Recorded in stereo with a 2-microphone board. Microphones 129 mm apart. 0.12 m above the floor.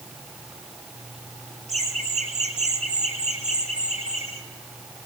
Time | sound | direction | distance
1.7 | laughter | 55° right (ahead or behind) | 6.5 m